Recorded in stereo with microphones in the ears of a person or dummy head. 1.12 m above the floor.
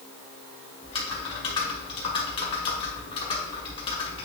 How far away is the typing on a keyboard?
About 2 m.